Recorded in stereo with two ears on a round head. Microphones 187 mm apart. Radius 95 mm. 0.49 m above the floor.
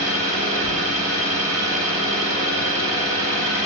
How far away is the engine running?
About 1.3 m.